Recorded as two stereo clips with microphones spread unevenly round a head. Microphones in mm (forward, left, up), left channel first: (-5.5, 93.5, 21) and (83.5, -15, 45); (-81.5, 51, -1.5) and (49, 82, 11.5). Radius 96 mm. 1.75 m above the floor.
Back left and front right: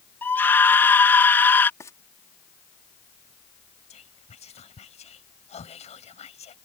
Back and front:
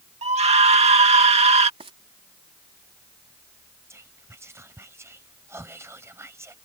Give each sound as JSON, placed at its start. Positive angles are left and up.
{"t": 0.2, "sound": "a scream", "azimuth_deg": 50}
{"t": 1.8, "sound": "frying", "azimuth_deg": 60}
{"t": 3.9, "sound": "whispering", "azimuth_deg": 85}